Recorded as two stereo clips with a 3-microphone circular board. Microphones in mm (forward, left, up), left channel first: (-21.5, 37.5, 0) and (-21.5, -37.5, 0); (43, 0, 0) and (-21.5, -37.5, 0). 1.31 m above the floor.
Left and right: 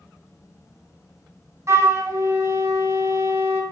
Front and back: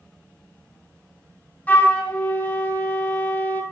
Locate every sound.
1.7 s a flute: 40° right, 1.4 m